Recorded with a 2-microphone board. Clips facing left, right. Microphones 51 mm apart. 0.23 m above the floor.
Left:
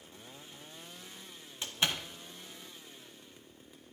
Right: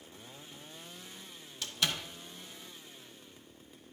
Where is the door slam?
25° left (ahead or behind), 1.0 m.